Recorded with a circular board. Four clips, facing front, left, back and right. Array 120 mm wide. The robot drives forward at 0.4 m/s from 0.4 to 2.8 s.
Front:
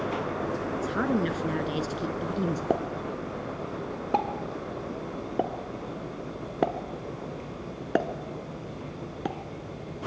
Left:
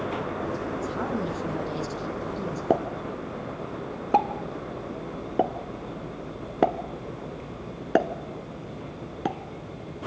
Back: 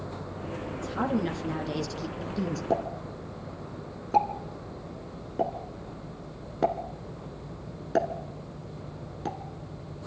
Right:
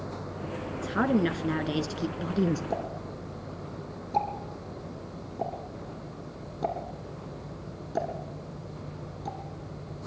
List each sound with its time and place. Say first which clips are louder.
0.8 s a woman speaking: right 3 dB, front 1 dB; 60° right, 2.5 m; by 2.6 s 75° right, 2 m
2.7 s a pop: left 8 dB, front 1 dB; 65° left, 1.1 m; by 9.4 s 70° left, 1.1 m